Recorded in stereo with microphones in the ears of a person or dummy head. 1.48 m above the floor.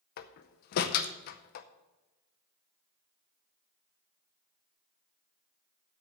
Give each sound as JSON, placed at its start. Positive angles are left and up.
{"t": 0.2, "sound": "a door slam", "side_deg": 45, "distance_m": 0.6}